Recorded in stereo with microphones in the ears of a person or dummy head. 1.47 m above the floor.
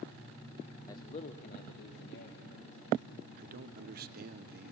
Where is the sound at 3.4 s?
50° right (ahead or behind), 0.9 m.